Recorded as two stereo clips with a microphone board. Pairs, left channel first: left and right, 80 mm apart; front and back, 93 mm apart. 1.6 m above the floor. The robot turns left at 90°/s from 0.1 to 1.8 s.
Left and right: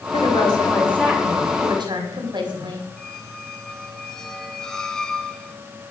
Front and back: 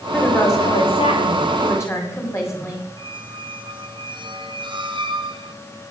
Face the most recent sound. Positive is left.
turn(degrees=170)